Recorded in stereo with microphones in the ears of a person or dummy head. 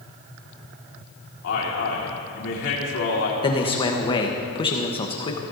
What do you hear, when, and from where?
1.4 s a man speaking: 65° left (ahead or behind), 2 m
3.4 s a man speaking: 25° left (ahead or behind), 1.1 m